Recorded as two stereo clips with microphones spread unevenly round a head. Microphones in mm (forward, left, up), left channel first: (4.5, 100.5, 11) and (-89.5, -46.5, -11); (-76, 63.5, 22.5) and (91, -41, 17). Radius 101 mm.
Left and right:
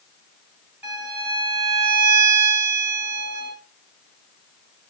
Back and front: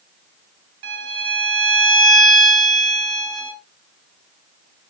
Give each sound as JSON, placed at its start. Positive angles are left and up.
{"t": 0.8, "sound": "a violin", "azimuth_deg": -35, "distance_m": 3.0}